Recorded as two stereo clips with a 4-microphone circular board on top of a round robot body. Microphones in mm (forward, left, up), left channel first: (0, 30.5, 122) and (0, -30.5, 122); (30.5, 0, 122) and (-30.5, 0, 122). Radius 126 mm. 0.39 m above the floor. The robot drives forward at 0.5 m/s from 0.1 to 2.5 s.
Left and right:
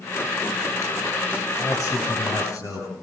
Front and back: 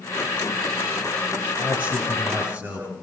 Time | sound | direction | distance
1.6 | a man speaking | 110° left | 6.5 m